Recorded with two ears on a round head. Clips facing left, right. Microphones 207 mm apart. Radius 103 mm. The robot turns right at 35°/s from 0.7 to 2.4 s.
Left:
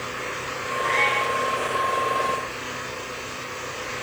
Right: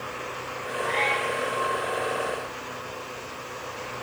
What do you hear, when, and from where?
0.8 s a cat meowing: 35° left (ahead or behind), 8 m; by 1.3 s 20° left (ahead or behind), 8 m